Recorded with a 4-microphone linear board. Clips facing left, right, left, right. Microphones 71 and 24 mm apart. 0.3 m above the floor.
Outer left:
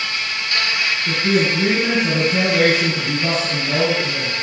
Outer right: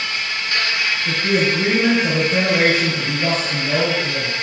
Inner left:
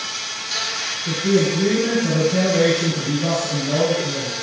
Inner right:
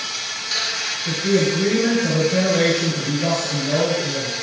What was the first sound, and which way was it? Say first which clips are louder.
An insect: even, inner right 1 dB; 25° right (ahead or behind).